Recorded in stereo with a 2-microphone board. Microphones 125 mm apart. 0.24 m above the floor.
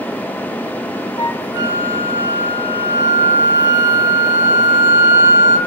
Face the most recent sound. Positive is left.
turn(degrees=-30)  # may be behind; listen again after turning